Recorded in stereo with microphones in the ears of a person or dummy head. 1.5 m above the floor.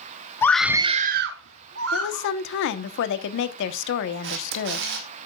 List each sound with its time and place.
0.4 s a scream: 15° left (ahead or behind), 0.8 m; by 2.3 s 85° right, 1.9 m
1.9 s a woman speaking: 70° left (ahead or behind), 1.1 m
4.2 s a camera shutter: 60° right (ahead or behind), 1.8 m